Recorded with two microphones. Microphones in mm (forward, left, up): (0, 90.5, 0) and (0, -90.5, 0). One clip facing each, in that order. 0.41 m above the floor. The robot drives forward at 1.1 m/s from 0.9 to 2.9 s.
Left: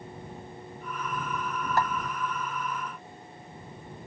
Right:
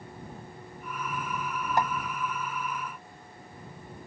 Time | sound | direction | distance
1.8 | a snare drum | 20° right (ahead or behind) | ?